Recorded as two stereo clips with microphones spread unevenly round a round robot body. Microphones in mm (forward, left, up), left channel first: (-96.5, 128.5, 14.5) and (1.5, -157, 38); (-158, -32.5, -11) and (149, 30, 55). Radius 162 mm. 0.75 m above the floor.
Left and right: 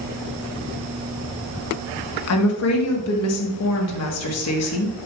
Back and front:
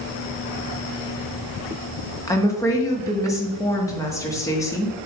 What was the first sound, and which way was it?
A woman speaking, 120° left.